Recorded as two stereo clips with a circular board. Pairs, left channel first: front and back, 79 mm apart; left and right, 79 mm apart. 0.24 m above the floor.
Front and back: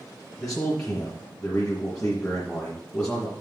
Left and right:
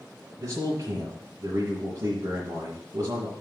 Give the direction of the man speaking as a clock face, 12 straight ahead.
2 o'clock.